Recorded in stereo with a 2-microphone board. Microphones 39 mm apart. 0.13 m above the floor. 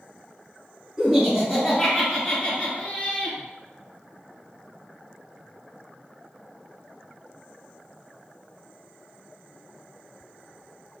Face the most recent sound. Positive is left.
turn(degrees=25)  # may be behind; listen again after turning